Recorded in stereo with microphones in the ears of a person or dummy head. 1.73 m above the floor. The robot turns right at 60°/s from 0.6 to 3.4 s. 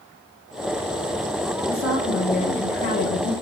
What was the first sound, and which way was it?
A woman speaking, 25° right.